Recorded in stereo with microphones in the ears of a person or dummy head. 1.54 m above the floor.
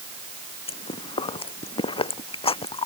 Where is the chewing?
25° left (ahead or behind).